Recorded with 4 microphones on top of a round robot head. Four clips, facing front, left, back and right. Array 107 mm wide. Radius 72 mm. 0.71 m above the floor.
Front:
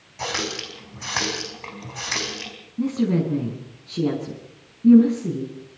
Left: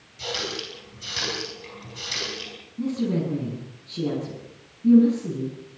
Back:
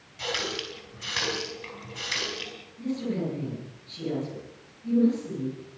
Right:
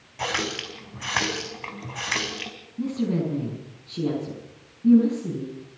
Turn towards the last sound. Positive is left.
turn(degrees=0)